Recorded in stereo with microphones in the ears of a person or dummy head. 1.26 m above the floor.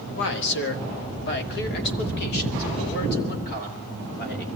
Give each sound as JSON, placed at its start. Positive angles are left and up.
{"t": 0.1, "sound": "a man speaking", "side_deg": 65, "distance_m": 1.7}